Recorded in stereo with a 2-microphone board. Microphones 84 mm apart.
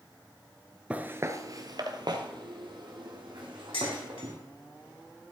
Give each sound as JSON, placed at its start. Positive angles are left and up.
{"t": 0.9, "sound": "footsteps", "side_deg": -15, "distance_m": 0.7}
{"t": 3.7, "sound": "dishes clattering", "side_deg": 80, "distance_m": 2.5}